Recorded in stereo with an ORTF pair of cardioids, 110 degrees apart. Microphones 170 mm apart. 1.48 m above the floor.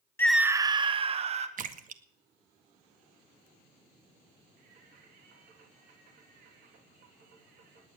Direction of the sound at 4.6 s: 65° right.